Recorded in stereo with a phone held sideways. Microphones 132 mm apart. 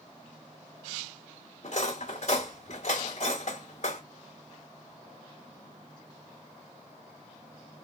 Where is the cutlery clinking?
55° left (ahead or behind), 1.4 m.